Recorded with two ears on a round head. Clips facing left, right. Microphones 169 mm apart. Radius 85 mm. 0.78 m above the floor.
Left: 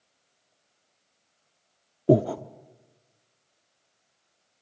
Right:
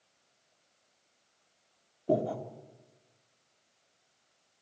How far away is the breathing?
About 0.8 m.